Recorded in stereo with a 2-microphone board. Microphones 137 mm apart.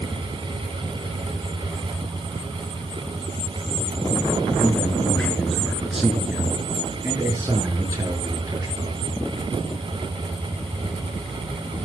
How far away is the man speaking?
About 5 m.